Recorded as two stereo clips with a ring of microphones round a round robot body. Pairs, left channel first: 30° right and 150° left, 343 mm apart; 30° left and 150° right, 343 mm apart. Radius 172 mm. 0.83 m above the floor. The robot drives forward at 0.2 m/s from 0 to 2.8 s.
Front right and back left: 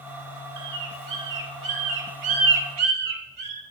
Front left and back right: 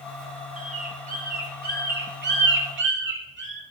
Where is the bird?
145° left, 1.2 m; by 3.6 s 155° left, 1.5 m.